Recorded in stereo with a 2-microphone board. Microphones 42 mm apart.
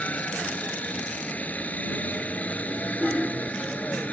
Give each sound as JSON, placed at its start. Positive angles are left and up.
{"t": 0.0, "sound": "a helicopter", "side_deg": 35}